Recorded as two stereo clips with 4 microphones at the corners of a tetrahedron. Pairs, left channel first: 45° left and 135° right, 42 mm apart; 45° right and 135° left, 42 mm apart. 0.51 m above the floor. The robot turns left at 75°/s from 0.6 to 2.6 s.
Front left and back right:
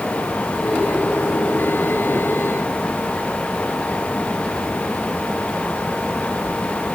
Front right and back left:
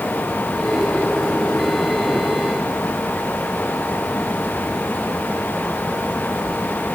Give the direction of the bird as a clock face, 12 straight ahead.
No bird in this recording.